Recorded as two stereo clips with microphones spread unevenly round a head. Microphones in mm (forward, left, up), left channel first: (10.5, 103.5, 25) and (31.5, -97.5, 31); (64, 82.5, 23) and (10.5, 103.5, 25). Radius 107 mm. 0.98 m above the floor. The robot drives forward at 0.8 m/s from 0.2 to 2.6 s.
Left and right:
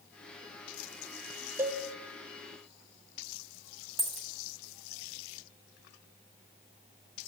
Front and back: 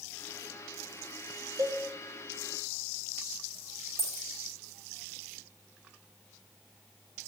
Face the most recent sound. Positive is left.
turn(degrees=-175)